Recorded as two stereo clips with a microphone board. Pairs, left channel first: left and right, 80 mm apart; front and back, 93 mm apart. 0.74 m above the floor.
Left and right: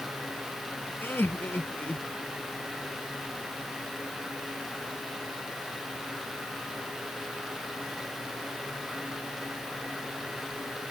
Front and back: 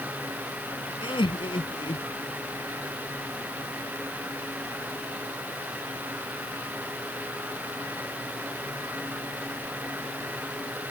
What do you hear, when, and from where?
1.0 s laughter: 25° left; by 2.1 s 20° left